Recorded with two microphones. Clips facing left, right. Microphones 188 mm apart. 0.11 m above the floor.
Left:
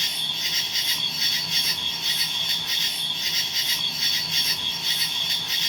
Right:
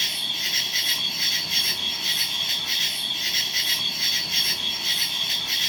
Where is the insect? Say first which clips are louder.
Right 1 dB; 5° right (ahead or behind), 0.8 m.